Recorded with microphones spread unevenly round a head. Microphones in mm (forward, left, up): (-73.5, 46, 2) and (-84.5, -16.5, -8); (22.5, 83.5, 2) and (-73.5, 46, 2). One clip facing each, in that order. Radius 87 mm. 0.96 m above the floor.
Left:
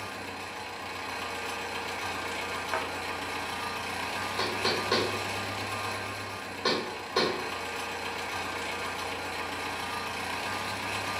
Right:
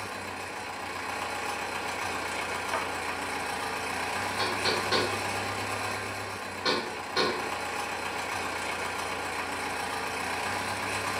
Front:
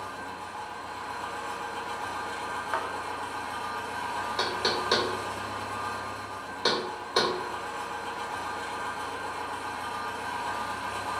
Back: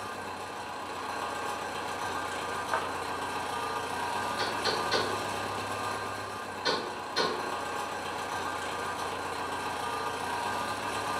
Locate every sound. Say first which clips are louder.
0.0 s an engine running: right 2 dB, even; 165° right, 1.0 m
2.7 s a thud: even, front 1 dB; 115° left, 0.8 m
4.4 s knocking: even, front 2 dB; 35° left, 1.3 m